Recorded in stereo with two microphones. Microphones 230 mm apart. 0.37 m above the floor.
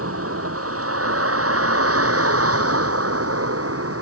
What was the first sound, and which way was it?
A vehicle, 80° right.